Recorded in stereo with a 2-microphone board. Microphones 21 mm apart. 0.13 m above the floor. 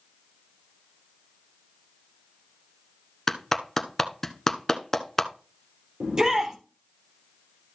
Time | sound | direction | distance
3.3 | a clap | 15° left (ahead or behind) | 0.9 m
6.0 | a shout | 35° right (ahead or behind) | 4 m